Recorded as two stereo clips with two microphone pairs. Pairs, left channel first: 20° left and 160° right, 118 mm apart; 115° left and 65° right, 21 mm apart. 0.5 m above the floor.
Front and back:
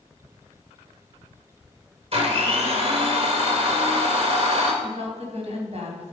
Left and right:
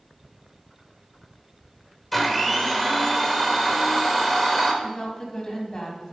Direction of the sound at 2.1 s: 160° right.